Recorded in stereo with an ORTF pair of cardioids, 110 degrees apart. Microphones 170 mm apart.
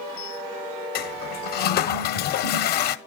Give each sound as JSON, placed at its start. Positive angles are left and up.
{"t": 0.9, "sound": "a toilet flushing", "azimuth_deg": 70, "distance_m": 0.9}